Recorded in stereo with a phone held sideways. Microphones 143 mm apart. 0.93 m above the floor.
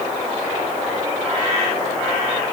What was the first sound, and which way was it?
Only background noise.